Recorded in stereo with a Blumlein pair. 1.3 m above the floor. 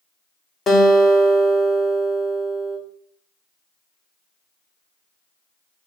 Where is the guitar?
15° left, 0.6 m.